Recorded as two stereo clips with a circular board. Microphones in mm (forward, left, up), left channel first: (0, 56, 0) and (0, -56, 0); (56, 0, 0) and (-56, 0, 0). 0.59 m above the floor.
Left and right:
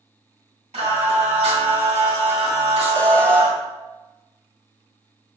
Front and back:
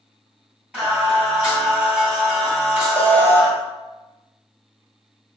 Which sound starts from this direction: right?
Singing, at 0.7 s.